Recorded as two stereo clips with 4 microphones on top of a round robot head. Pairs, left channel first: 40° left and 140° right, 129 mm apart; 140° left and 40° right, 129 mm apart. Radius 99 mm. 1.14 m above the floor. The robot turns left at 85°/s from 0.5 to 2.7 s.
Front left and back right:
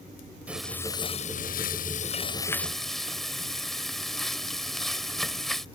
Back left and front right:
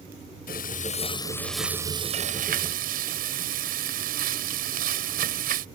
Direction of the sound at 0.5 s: 140° left.